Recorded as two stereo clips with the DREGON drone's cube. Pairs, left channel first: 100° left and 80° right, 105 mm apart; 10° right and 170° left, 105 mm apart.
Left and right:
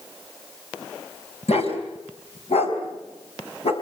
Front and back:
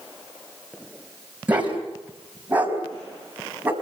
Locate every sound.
1.5 s a dog barking: 95° left, 4 m; by 3.7 s 100° left, 5 m